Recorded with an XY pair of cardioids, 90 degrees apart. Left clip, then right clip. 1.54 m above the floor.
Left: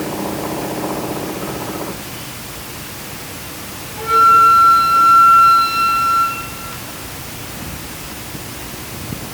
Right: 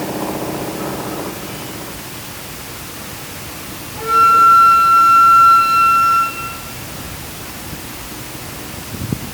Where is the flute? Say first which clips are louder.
Even; 10° right, 3.5 m.